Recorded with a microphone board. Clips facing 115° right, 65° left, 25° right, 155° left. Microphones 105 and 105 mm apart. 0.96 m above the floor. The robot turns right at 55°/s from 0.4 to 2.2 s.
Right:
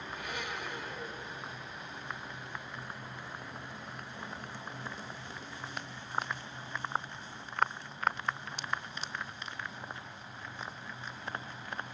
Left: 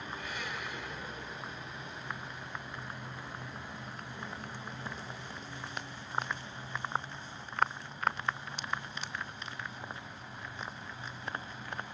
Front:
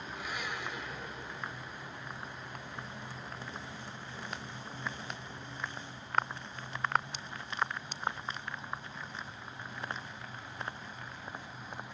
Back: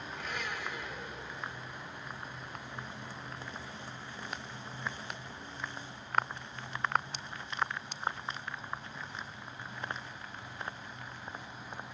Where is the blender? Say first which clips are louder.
Right 2 dB, even; 100° right, 2.5 m; by 1.6 s 35° right, 2.5 m.